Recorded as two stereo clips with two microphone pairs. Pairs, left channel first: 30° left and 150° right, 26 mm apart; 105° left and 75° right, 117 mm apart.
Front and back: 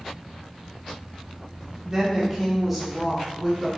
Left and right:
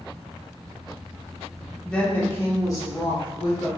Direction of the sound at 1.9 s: Straight behind.